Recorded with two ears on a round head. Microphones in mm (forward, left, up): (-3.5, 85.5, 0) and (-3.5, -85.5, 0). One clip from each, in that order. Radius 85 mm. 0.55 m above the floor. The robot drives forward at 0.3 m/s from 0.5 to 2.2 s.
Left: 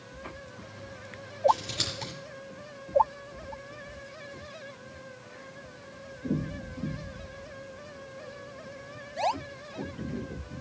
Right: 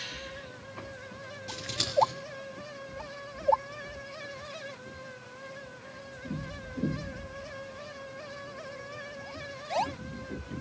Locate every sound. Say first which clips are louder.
1.5 s scissors: left 6 dB; 5° right (ahead or behind), 3.5 m